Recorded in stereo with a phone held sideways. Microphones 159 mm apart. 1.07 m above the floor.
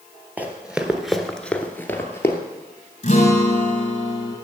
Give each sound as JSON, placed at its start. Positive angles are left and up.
{"t": 0.4, "sound": "running footsteps", "side_deg": -10, "distance_m": 1.5}
{"t": 3.0, "sound": "a guitar", "side_deg": 45, "distance_m": 3.0}